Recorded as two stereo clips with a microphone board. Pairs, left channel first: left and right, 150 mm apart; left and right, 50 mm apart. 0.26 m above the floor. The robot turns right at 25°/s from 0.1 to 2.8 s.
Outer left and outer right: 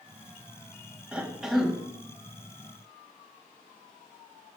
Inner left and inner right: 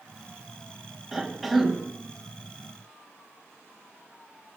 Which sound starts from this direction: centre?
A cough, at 1.1 s.